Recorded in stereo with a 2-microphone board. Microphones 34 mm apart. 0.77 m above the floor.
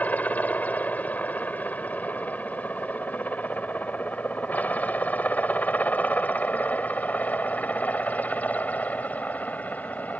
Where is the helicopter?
60° left (ahead or behind).